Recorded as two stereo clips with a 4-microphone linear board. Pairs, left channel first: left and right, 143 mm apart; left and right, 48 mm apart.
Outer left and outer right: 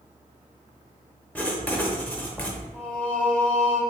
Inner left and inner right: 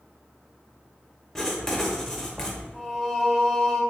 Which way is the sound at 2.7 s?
5° left (ahead or behind).